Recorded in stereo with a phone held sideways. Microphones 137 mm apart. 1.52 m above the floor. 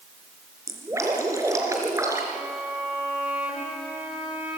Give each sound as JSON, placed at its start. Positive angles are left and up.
{"t": 0.7, "sound": "dripping", "side_deg": -20, "distance_m": 4.0}
{"t": 2.3, "sound": "a violin", "side_deg": -10, "distance_m": 4.0}